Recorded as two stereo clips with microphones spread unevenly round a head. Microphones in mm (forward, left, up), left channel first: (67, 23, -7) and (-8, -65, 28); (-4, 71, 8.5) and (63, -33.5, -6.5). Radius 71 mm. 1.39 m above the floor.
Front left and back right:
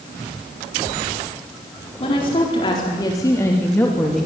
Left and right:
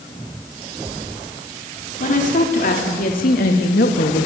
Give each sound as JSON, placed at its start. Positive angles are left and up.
{"t": 2.0, "sound": "a woman speaking", "azimuth_deg": 105, "distance_m": 5.0}